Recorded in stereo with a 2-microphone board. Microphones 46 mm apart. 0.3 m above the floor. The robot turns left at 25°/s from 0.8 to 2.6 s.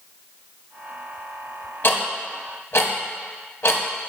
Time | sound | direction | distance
1.8 | ticking | 50° left (ahead or behind) | 0.6 m